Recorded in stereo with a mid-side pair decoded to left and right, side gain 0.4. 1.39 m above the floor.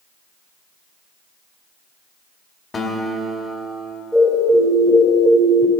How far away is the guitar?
About 2.5 m.